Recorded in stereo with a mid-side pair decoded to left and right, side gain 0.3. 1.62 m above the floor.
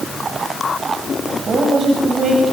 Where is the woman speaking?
65° right, 8 m.